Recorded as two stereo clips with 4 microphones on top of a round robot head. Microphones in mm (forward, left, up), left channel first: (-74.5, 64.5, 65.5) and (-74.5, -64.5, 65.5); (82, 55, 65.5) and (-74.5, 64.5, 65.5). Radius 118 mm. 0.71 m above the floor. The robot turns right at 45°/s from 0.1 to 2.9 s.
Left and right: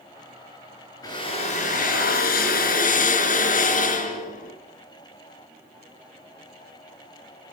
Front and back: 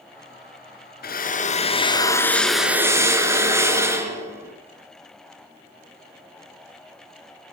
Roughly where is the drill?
Ahead.